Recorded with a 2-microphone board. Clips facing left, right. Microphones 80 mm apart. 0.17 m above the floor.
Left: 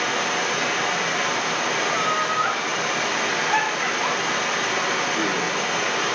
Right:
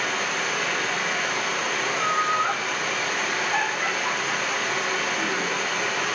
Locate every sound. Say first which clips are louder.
0.0 s running water: left 3 dB; 70° left (ahead or behind), 5 m
1.9 s laughter: right 1 dB; 75° left (ahead or behind), 7 m